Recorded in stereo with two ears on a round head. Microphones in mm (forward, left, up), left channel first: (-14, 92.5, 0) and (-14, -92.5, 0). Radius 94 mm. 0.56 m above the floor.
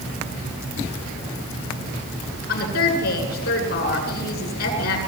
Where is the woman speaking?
45° left (ahead or behind), 9 m.